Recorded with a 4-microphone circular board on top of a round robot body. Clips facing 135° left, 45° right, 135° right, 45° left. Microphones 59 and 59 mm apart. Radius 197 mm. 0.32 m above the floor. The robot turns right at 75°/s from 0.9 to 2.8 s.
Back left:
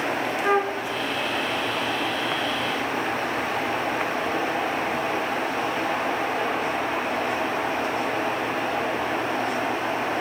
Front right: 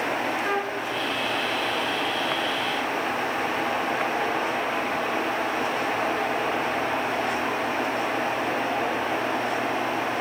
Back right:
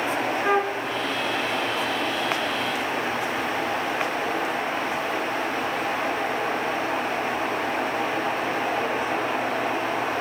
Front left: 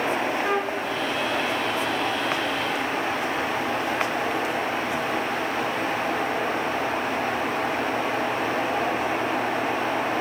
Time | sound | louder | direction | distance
0.4 | a flute | back left 4 dB, back right 2 dB | 175° left | 0.7 m